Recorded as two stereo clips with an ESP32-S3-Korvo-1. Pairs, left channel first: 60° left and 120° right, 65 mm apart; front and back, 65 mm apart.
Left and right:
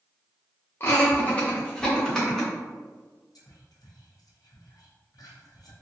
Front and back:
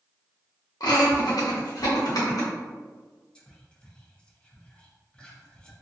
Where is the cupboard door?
No cupboard door in this recording.